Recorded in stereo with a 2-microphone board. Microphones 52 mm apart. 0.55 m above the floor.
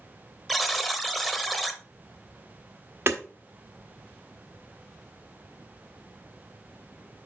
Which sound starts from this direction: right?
Hammering, at 3.1 s.